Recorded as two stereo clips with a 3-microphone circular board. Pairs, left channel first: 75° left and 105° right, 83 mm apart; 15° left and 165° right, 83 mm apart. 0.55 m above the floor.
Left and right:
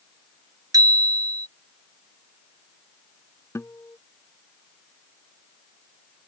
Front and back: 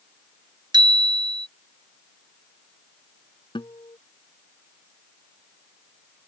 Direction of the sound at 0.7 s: 145° right.